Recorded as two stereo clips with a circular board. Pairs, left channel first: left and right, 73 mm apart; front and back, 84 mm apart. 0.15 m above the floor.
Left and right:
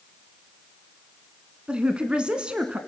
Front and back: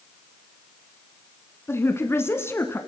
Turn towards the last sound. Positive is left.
turn(degrees=-25)